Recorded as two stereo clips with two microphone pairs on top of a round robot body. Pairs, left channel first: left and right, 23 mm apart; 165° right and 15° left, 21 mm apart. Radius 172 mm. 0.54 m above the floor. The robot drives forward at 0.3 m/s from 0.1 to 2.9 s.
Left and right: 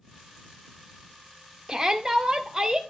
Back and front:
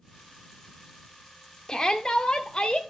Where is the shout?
160° right, 0.8 m; by 2.8 s 165° right, 1.1 m.